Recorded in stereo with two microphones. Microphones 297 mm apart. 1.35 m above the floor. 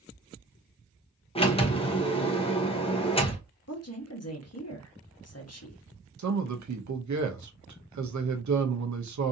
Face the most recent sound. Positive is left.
turn(degrees=-70)  # may be behind; listen again after turning